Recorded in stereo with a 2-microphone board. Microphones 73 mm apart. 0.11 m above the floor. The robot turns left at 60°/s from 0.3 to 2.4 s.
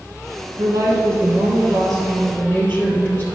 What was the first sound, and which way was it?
A woman speaking, 100° right.